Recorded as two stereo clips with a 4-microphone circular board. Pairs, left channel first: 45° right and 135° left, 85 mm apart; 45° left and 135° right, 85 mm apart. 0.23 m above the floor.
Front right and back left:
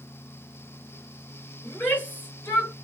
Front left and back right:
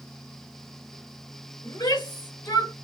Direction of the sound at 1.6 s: 25° left.